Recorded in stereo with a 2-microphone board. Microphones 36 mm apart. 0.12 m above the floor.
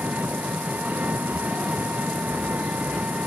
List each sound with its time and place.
0.0 s an engine running: 50° right (ahead or behind)